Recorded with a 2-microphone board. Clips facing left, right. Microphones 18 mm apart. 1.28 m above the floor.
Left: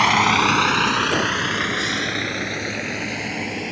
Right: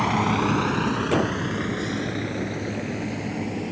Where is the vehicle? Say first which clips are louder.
Left 6 dB; 55° left (ahead or behind); by 3.7 s 45° left (ahead or behind).